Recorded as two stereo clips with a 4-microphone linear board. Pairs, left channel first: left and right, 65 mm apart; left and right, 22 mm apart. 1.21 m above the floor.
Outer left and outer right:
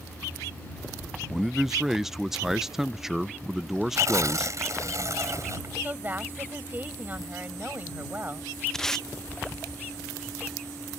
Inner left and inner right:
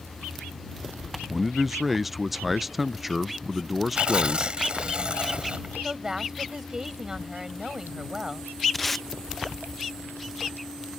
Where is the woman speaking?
30° right (ahead or behind).